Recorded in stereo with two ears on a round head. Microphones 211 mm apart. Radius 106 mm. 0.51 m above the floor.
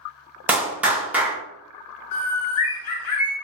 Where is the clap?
5° right (ahead or behind), 0.6 m.